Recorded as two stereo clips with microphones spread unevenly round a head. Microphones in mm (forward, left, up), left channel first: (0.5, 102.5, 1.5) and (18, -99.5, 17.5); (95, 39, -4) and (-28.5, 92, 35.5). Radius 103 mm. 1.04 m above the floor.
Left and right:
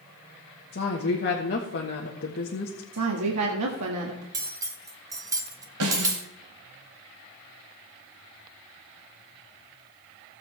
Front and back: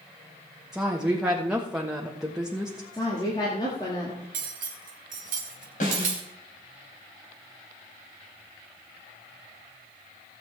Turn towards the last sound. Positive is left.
turn(degrees=-80)